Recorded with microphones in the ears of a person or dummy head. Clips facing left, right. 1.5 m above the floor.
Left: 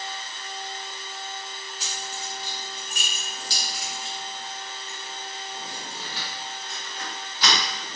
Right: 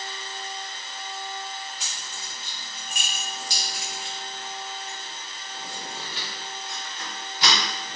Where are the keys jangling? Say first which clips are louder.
Left 5 dB; 20° right (ahead or behind), 0.5 m.